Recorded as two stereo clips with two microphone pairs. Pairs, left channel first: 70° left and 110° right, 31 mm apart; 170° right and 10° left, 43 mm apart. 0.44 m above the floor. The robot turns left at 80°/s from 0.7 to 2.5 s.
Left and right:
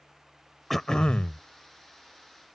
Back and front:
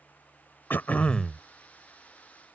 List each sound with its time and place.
0.7 s throat clearing: 160° left; by 1.4 s 100° left